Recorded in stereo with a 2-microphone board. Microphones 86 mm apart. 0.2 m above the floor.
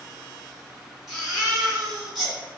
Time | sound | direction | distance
1.1 | a baby crying | 5° right (ahead or behind) | 1.3 m